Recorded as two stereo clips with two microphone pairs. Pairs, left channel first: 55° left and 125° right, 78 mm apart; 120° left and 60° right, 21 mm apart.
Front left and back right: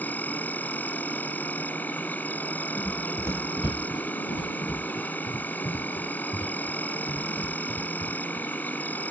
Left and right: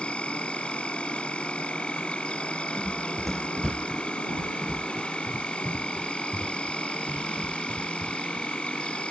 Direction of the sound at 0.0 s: 120° left.